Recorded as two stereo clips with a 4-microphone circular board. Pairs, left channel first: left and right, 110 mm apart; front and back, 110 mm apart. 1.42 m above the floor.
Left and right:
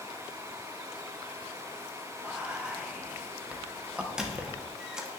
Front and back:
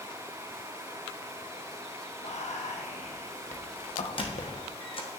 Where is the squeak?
10° right, 1.0 m.